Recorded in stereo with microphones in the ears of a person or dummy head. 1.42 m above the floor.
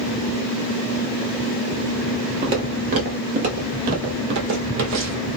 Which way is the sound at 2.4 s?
20° right (ahead or behind).